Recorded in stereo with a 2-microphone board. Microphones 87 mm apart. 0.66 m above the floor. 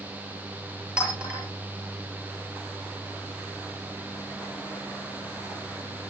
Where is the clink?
10° right (ahead or behind), 9 m.